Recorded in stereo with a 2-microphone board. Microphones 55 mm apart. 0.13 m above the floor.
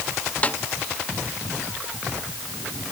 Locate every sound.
0.4 s a snare drum: 25° left (ahead or behind)